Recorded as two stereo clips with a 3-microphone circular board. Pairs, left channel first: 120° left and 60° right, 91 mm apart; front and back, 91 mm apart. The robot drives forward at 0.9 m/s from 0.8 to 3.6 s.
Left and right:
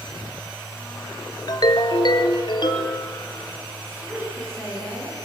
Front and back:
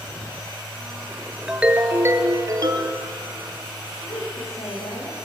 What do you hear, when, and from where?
1.5 s a ringtone: 100° left, 1.1 m; by 3.0 s 150° left, 1.9 m
3.9 s a woman speaking: straight ahead, 9 m